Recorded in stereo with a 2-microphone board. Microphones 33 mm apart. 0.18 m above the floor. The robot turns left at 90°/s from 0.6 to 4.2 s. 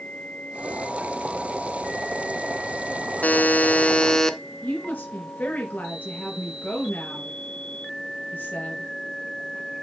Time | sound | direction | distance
3.2 | a buzzer | 110° left | 0.9 m
4.6 | a woman speaking | 55° left (ahead or behind) | 4 m